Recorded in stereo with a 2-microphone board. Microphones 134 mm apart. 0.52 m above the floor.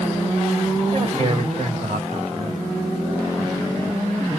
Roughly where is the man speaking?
Right.